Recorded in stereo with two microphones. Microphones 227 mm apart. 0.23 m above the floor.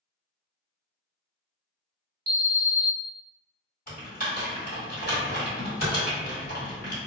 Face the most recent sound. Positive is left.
turn(degrees=40)  # may be behind; listen again after turning